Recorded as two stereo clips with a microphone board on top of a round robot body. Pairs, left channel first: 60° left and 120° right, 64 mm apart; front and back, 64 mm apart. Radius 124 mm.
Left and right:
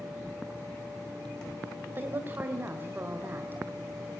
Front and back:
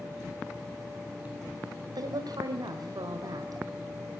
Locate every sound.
1.9 s a woman speaking: 175° right, 2.5 m